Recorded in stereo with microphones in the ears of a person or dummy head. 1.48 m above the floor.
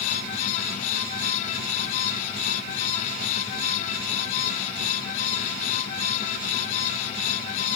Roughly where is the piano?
No piano in this recording.